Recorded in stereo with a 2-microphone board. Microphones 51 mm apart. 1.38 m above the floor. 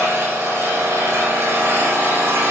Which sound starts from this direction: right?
An engine running, at 0.0 s.